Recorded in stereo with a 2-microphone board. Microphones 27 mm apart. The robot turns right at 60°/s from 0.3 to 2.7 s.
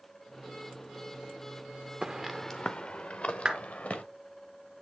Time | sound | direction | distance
2.0 | footsteps | 20° right (ahead or behind) | 0.8 m
3.5 | a clap | 35° right (ahead or behind) | 2 m